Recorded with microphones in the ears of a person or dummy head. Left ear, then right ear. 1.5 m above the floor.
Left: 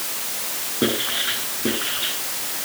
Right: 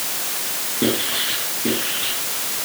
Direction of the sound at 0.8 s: 40° left (ahead or behind).